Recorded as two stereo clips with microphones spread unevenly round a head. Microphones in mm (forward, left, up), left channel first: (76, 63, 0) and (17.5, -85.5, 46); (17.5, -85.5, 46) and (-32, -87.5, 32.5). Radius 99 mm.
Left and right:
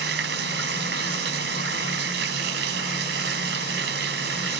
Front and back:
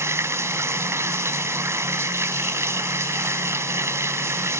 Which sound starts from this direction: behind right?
Running water, at 0.0 s.